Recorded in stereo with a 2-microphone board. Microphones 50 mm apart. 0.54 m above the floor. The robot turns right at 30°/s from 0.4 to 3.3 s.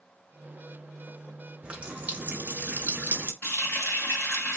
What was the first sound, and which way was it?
A running tap, 140° right.